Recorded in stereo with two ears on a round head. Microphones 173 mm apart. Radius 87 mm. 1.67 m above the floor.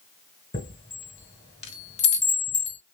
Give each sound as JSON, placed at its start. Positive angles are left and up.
{"t": 0.5, "sound": "a chime", "side_deg": 30, "distance_m": 2.5}